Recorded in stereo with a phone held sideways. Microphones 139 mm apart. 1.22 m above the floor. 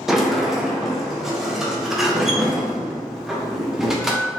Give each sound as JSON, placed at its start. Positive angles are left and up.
{"t": 0.1, "sound": "a sliding door", "side_deg": -5, "distance_m": 0.7}